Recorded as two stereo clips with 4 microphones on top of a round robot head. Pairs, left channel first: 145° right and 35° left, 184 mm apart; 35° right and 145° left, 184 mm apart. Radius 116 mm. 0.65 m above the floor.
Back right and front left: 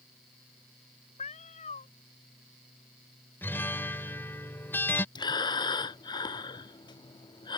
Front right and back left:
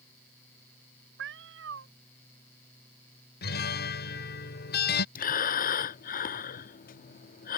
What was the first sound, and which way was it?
A cat meowing, 160° left.